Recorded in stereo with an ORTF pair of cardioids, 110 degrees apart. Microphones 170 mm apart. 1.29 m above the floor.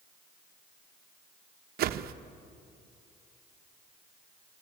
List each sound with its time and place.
1.8 s a whoosh: 65° right, 1.0 m